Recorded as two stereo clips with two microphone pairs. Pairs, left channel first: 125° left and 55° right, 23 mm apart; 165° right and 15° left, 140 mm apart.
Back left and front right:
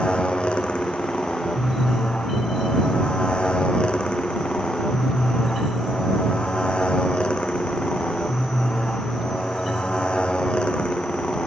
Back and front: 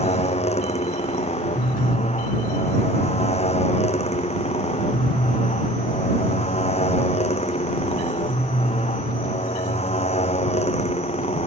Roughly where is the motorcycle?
Behind left.